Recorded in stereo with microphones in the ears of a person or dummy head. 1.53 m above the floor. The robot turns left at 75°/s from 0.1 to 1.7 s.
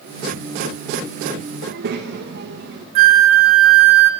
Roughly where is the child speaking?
Right.